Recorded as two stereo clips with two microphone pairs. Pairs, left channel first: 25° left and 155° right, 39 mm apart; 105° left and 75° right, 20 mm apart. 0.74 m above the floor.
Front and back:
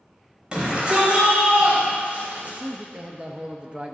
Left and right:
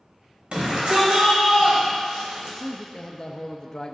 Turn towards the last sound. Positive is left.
turn(degrees=150)